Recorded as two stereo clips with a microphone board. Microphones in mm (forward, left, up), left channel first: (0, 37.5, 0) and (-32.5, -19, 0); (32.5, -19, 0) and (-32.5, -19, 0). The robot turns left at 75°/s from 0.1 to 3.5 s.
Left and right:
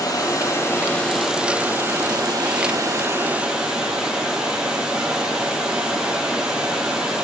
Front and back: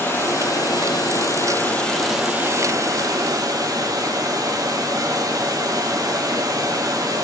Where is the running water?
55° left, 1.6 m; by 7.2 s 160° left, 1.6 m.